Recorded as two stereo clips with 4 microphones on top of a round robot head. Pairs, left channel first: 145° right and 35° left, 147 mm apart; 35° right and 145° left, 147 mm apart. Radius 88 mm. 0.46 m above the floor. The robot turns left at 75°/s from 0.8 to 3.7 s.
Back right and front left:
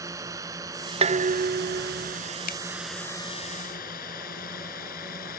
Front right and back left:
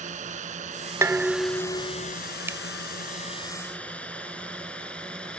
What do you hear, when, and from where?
0.0 s a drone: 105° left; by 5.4 s 120° right
1.0 s dishes clattering: 75° left; by 2.2 s 10° right
2.5 s a finger snap: 140° right; by 2.6 s 150° right